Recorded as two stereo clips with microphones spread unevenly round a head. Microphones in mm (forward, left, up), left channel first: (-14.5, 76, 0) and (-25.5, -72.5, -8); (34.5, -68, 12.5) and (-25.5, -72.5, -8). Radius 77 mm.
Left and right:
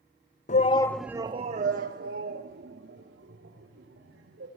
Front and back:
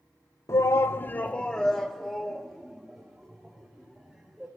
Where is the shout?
70° left, 0.8 m; by 4.5 s 100° right, 4 m.